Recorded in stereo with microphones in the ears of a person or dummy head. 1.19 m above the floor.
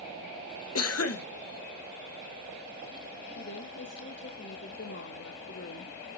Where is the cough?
80° left, 1.4 m.